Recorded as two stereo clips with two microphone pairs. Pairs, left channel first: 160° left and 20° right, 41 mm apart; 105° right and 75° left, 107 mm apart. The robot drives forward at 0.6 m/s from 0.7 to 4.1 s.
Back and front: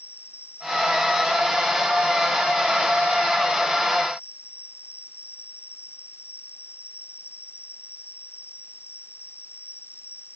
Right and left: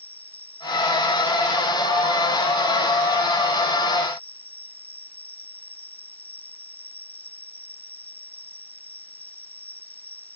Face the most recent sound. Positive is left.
turn(degrees=180)